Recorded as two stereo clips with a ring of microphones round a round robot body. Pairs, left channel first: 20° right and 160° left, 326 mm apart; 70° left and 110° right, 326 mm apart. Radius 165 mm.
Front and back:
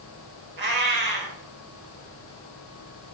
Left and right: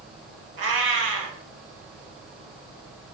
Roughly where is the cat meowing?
Behind right.